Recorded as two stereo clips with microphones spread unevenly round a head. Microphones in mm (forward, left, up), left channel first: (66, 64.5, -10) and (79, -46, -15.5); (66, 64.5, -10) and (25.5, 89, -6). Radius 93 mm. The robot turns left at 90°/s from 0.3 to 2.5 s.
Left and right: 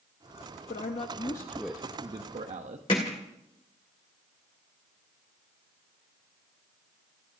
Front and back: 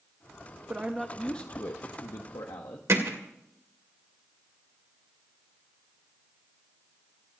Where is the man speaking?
95° left, 1.1 m; by 2.8 s 70° right, 1.1 m.